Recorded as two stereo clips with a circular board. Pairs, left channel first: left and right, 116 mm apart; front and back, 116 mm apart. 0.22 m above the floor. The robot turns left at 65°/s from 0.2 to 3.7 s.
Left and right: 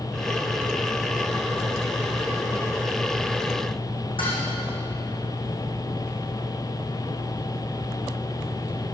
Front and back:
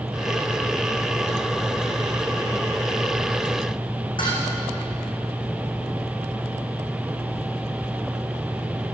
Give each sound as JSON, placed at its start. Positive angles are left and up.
{"t": 4.2, "sound": "dishes clattering", "azimuth_deg": 45, "distance_m": 9.5}